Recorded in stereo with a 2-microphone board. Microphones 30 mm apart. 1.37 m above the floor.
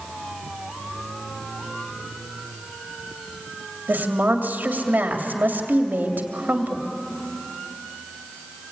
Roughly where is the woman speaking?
Right.